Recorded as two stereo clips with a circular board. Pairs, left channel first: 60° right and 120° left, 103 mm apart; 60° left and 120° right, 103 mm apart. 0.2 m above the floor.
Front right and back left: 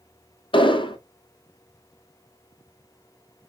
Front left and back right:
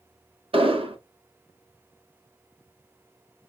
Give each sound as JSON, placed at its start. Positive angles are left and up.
{"t": 0.5, "sound": "an explosion", "azimuth_deg": -95, "distance_m": 0.8}